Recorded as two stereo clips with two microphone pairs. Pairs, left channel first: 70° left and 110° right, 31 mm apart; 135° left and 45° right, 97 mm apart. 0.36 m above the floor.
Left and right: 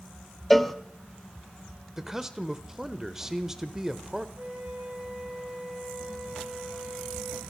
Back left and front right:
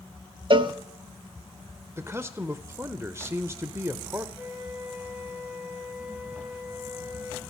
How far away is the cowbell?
About 0.6 m.